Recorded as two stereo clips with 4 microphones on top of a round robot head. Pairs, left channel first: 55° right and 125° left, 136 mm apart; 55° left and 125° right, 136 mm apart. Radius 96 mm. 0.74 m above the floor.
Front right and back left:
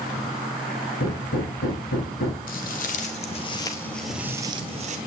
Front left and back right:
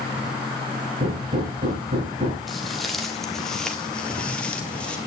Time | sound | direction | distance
1.0 | hammering | 75° right | 4.5 m
2.5 | footsteps | 35° right | 1.1 m